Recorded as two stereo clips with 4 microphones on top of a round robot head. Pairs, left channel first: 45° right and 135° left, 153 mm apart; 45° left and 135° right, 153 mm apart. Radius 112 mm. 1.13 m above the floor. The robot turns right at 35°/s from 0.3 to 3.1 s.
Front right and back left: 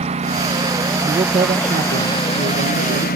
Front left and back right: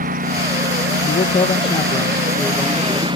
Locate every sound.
0.0 s a lawn mower: 175° right; by 3.2 s 75° right
1.0 s a man speaking: 80° left; by 3.1 s 150° left